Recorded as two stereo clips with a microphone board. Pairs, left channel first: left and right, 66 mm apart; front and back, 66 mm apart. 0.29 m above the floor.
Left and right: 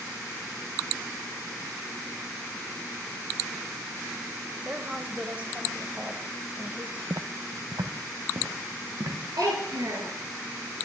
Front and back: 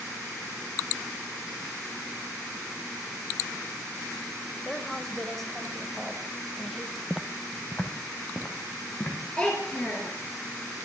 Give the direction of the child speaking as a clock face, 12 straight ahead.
2 o'clock.